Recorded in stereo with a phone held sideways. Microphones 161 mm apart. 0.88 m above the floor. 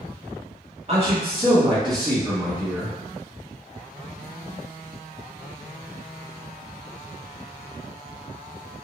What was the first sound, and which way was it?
A man speaking, 40° right (ahead or behind).